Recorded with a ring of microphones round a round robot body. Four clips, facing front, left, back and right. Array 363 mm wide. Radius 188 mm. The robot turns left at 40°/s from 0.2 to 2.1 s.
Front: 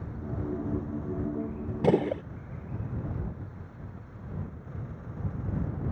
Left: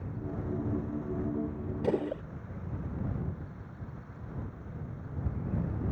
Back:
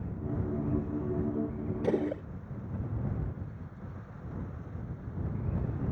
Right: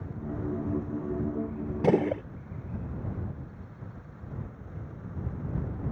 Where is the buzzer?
I don't hear a buzzer.